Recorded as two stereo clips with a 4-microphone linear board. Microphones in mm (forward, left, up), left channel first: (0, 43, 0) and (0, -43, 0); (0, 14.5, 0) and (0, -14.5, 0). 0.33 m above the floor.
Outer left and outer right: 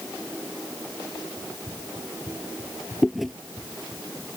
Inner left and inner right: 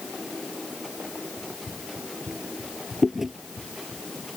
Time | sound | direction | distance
1.4 | running footsteps | 20° right (ahead or behind) | ?
3.0 | chewing | centre (ahead or behind) | ?